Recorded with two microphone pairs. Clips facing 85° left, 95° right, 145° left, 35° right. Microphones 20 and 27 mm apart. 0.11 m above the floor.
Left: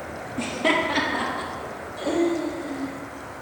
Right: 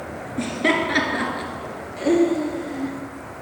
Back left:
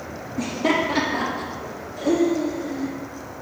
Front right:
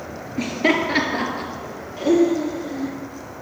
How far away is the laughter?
About 1.8 m.